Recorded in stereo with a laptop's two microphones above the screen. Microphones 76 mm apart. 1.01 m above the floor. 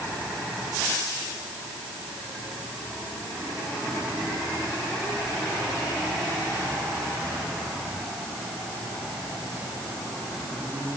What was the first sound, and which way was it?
Only background noise.